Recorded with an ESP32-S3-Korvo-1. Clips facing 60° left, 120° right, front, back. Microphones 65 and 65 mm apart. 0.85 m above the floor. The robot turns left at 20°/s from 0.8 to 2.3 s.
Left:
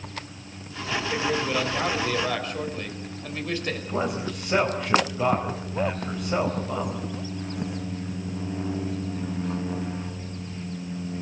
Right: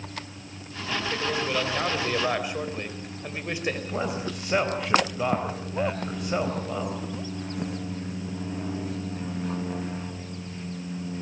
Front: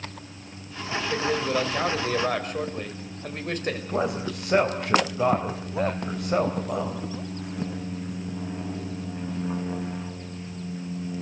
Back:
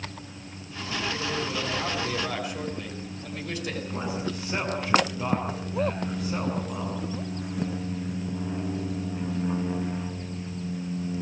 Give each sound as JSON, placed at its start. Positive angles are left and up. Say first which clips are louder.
{"t": 1.1, "sound": "a man speaking", "louder": "left 2 dB, front 8 dB", "azimuth_deg": -20, "distance_m": 4.5}
{"t": 3.9, "sound": "a man speaking", "louder": "left 2 dB, front 6 dB", "azimuth_deg": -30, "distance_m": 3.5}